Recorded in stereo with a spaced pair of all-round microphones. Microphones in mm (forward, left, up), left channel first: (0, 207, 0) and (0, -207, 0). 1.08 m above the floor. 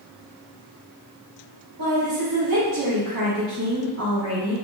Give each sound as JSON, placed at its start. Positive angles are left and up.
{"t": 1.8, "sound": "a woman speaking", "side_deg": -55, "distance_m": 1.0}